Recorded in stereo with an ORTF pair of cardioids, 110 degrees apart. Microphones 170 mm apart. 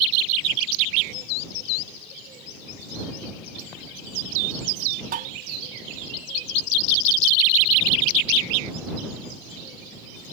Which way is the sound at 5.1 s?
55° right.